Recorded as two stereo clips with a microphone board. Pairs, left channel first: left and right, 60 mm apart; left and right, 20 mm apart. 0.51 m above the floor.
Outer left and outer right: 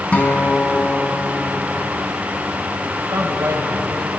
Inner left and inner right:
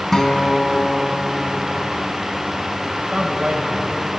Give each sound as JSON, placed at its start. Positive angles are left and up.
{"t": 0.1, "sound": "a guitar", "side_deg": 20, "distance_m": 3.5}
{"t": 3.0, "sound": "a man speaking", "side_deg": -65, "distance_m": 3.0}